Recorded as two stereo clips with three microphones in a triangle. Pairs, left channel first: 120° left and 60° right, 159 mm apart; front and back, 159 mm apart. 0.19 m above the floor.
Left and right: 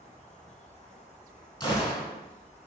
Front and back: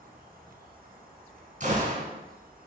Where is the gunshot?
170° left, 2 m.